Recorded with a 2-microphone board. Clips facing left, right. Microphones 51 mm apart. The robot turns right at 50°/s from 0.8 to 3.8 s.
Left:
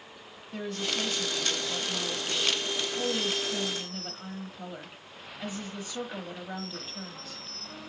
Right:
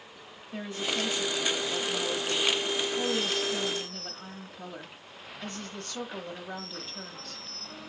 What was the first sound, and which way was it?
A woman speaking, 20° right (ahead or behind).